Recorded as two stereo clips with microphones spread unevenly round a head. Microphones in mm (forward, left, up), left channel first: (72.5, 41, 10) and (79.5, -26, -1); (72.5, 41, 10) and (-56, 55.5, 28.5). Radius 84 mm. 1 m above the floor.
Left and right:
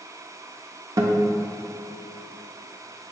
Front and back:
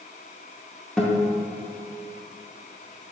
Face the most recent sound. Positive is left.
turn(degrees=-100)